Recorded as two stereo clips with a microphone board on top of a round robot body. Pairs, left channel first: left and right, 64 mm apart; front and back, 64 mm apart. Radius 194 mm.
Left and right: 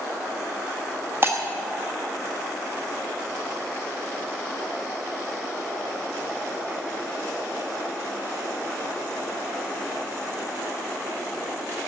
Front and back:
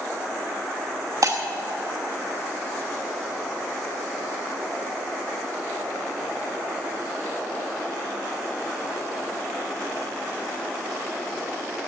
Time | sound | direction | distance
1.2 | breaking glass | 145° right | 1.1 m